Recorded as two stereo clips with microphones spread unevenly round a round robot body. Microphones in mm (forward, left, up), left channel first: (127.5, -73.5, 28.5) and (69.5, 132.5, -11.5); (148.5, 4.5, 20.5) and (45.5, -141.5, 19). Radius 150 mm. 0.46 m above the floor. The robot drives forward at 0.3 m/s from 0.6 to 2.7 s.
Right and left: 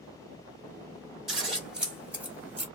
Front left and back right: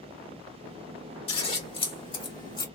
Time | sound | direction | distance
1.3 | scissors | 35° left | 1.4 m